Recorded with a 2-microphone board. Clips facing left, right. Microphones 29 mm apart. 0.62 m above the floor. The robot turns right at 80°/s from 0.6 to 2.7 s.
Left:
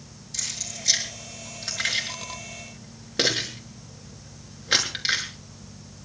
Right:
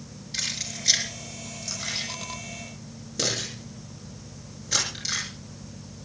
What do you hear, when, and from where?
0.3 s keys jangling: 35° right (ahead or behind), 6 m; by 5.2 s 45° left (ahead or behind), 6 m